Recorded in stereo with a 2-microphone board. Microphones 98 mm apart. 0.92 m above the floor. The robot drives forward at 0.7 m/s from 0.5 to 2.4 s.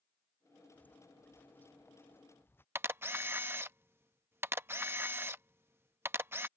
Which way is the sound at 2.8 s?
25° right (ahead or behind).